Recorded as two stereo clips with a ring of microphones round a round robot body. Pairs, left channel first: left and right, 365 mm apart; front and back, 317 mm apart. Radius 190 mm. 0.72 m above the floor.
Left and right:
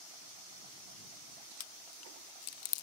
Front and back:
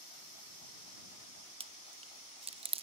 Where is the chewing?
115° left.